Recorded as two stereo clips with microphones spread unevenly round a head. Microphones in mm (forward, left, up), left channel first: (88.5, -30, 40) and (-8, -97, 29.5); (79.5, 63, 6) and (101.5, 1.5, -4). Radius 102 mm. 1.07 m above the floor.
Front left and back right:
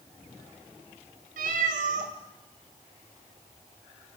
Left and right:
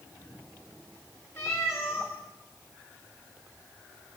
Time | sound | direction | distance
1.4 | a cat meowing | 175° right | 1.7 m